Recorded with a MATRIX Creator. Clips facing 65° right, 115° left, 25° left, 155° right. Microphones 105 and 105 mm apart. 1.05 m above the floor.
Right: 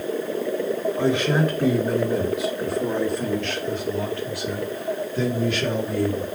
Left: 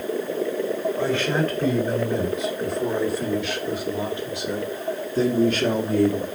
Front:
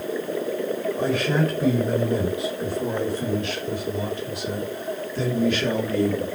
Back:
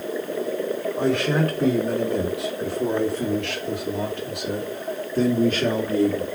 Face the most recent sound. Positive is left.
turn(degrees=145)